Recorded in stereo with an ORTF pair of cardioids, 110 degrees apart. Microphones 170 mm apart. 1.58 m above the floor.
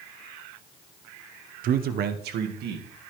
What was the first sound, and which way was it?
A man speaking, 55° right.